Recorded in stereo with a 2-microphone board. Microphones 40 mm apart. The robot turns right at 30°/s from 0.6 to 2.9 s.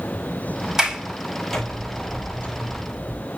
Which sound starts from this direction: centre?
A sliding door, at 0.8 s.